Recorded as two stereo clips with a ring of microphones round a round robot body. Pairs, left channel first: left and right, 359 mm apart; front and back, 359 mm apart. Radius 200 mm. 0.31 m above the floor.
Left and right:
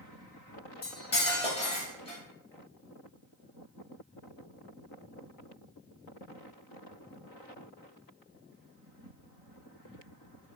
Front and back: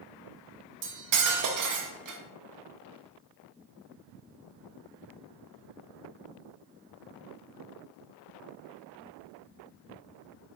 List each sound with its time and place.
0.8 s cutlery clinking: 160° left, 0.7 m